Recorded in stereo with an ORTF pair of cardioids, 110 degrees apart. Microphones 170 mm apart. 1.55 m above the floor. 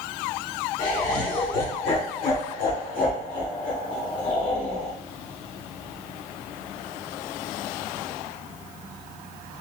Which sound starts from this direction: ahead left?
Laughter, at 0.8 s.